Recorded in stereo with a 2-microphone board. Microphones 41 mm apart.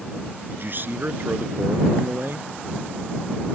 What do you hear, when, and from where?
0.5 s a man speaking: 50° right (ahead or behind)